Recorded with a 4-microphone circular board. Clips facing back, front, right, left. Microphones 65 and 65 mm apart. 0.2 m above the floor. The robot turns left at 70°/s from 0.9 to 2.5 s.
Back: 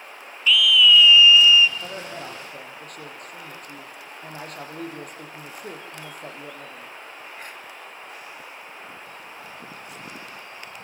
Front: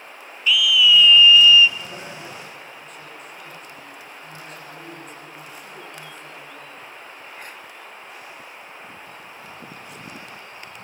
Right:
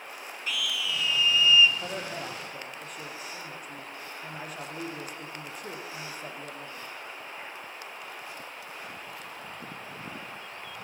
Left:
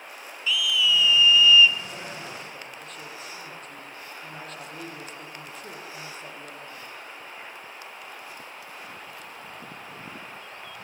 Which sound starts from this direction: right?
A scream, at 0.5 s.